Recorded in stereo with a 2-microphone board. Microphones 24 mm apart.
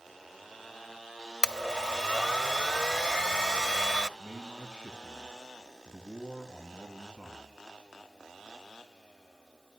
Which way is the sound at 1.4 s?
35° left (ahead or behind).